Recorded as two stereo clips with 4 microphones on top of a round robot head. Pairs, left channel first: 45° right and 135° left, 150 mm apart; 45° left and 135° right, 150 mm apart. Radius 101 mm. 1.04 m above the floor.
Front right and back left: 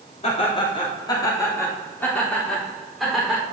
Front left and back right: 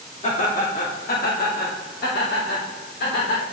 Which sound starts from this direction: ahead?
Laughter, at 0.2 s.